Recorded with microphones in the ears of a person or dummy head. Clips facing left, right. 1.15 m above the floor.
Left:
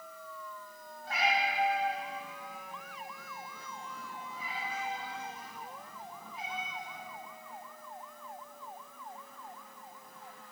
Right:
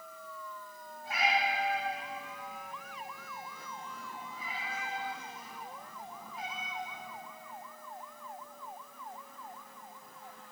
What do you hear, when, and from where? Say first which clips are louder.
1.0 s a cat meowing: even; 10° right (ahead or behind), 1.4 m; by 7.2 s 75° left (ahead or behind), 3 m